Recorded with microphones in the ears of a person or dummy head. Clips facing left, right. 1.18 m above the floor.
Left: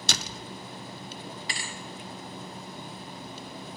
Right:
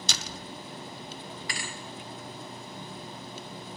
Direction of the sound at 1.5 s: 30° left (ahead or behind).